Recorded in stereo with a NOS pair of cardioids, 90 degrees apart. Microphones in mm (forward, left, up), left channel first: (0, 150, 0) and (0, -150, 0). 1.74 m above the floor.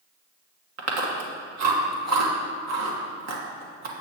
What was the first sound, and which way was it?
Chewing, 70° right.